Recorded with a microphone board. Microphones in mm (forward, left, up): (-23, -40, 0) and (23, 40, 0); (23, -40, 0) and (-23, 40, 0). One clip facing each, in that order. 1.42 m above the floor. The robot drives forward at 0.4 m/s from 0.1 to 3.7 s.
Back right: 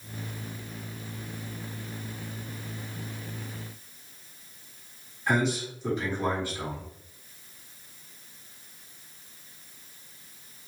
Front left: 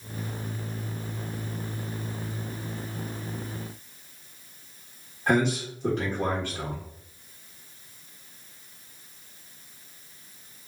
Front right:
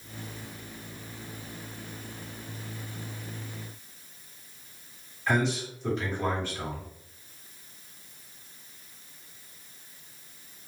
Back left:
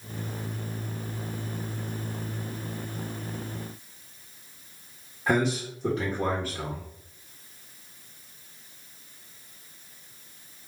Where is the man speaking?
85° left, 1.5 m.